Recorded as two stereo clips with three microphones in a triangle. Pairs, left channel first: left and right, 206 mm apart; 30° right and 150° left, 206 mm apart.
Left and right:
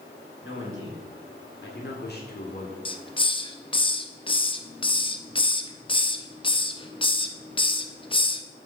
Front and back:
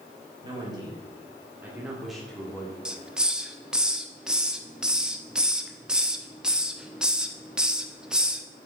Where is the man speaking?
85° left, 3.5 m; by 2.8 s 40° left, 1.7 m.